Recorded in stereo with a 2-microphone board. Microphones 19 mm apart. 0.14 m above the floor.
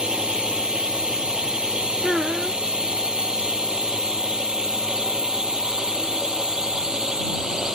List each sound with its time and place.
0.0 s a drone: 55° right (ahead or behind); by 7.8 s 40° right (ahead or behind)
2.0 s a child speaking: 30° right (ahead or behind)